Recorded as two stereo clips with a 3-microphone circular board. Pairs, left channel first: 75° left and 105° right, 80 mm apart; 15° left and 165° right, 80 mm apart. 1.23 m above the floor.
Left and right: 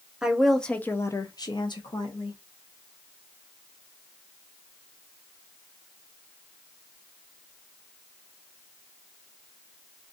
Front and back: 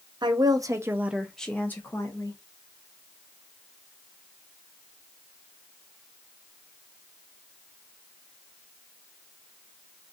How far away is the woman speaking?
About 0.8 m.